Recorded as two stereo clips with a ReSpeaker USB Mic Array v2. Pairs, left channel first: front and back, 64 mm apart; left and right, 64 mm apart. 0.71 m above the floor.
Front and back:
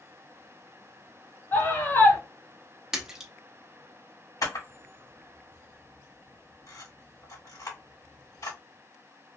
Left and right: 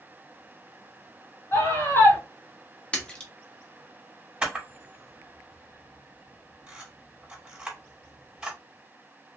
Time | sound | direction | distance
1.5 | a scream | 50° left | 2.5 m
2.9 | a splash | 125° left | 0.8 m
4.4 | a camera shutter | 10° right | 1.7 m